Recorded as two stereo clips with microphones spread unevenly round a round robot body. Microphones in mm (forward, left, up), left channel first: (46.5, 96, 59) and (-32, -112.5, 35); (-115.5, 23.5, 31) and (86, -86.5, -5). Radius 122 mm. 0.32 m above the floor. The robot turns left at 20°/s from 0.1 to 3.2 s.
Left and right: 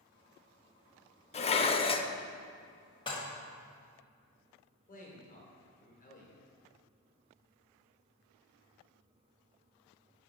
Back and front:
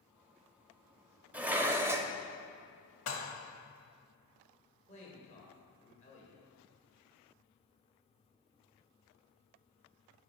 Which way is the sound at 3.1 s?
140° left.